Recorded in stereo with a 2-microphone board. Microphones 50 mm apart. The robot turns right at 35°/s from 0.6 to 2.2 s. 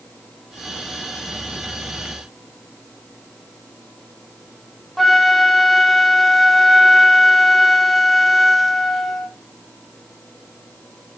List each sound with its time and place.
5.0 s a flute: centre (ahead or behind), 1.3 m